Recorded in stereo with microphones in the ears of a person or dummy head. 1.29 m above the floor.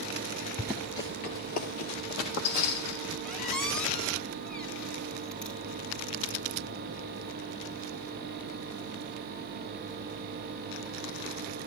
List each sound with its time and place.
0.6 s running footsteps: 5° right (ahead or behind), 1.4 m; by 3.1 s 65° left (ahead or behind), 3.5 m
3.2 s a squeak: 10° left (ahead or behind), 2 m